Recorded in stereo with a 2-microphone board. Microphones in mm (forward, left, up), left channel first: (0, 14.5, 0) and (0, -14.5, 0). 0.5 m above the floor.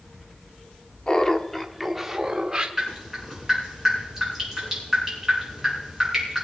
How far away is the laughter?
About 0.9 m.